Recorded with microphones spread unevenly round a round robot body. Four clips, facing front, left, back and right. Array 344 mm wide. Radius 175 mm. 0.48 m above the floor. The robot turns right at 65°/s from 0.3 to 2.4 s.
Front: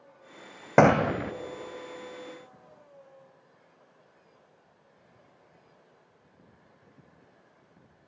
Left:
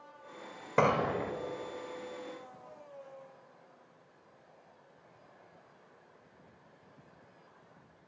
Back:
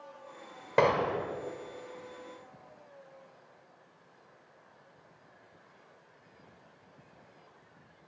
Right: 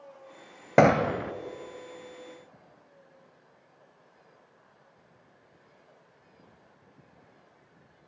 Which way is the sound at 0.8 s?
35° right.